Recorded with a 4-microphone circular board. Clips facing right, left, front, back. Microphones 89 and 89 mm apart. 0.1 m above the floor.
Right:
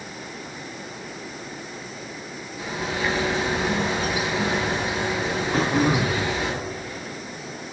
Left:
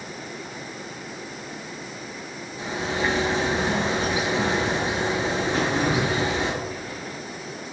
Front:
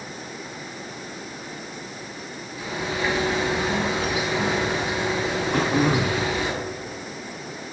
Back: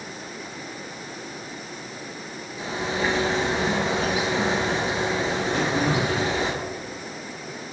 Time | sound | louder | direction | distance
2.6 | a bird | left 1 dB, back 1 dB | 140° left | 0.8 m
5.5 | throat clearing | right 4 dB, front 4 dB | 35° right | 0.6 m